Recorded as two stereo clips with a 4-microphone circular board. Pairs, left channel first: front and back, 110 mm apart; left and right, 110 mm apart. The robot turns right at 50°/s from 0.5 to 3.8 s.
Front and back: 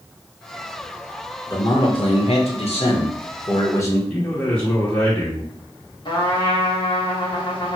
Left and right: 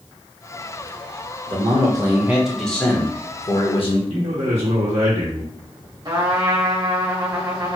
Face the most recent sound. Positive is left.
turn(degrees=-40)